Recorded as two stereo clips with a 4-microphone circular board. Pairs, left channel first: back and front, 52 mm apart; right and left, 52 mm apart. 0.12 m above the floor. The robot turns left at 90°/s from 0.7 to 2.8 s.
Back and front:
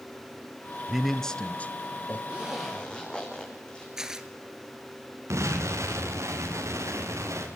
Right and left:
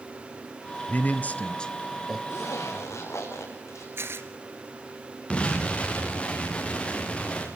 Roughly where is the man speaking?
Right.